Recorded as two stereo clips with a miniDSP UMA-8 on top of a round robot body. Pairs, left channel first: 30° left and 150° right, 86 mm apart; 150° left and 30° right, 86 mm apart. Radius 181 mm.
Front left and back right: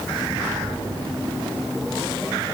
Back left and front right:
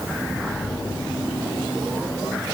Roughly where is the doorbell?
No doorbell in this recording.